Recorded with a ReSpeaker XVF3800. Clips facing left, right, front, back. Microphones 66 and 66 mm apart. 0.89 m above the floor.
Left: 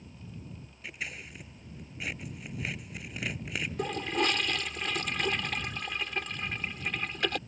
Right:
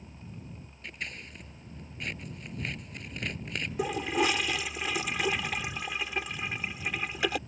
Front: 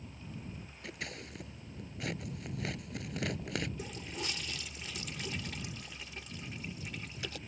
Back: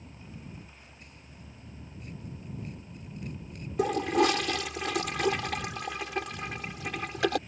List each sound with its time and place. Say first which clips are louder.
0.8 s scissors: even, front 9 dB; 5° left
3.8 s a toilet flushing: right 2 dB, back 17 dB; 175° right